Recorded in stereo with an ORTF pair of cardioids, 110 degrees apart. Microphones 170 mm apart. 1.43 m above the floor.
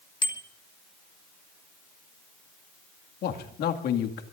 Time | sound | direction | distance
0.2 | a bicycle bell | 30° left | 2 m
3.2 | a man speaking | 65° left | 2 m